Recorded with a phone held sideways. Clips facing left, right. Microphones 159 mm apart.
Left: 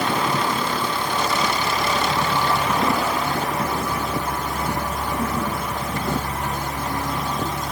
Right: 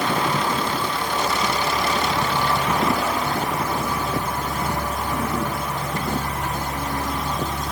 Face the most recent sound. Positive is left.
No sound to turn to.